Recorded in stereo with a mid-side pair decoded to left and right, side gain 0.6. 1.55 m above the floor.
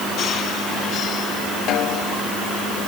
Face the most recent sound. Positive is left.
turn(degrees=60)